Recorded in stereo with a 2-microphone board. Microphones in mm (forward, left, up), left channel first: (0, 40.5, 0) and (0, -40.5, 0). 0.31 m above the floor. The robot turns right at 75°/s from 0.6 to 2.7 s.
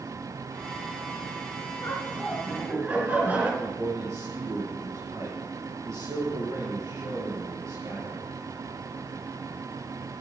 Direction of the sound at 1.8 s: 135° left.